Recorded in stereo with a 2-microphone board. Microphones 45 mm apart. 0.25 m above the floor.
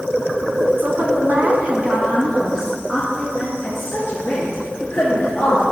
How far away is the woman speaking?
About 2.0 m.